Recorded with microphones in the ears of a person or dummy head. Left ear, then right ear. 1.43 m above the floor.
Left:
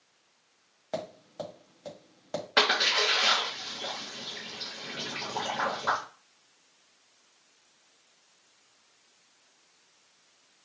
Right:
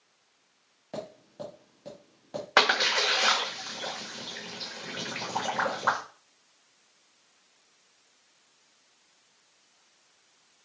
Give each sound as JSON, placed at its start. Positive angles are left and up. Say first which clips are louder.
{"t": 0.9, "sound": "tapping", "louder": "left 3 dB", "side_deg": 45, "distance_m": 1.9}
{"t": 2.6, "sound": "a splash", "louder": "right 1 dB", "side_deg": -35, "distance_m": 1.2}